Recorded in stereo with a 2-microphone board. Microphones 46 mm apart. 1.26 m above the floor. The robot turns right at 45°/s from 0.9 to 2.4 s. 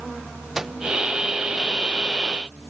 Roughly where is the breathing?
I don't hear breathing.